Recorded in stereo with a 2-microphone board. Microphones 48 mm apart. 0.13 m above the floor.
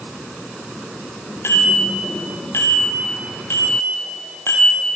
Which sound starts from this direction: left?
A bicycle bell, at 1.4 s.